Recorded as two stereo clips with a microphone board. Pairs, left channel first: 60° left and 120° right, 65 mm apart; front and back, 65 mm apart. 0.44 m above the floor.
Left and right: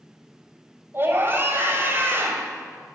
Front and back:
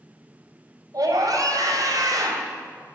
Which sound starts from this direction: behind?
A scream, at 0.9 s.